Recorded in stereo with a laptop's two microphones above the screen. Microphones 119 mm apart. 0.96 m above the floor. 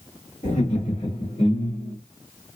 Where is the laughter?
75° left (ahead or behind), 2 m.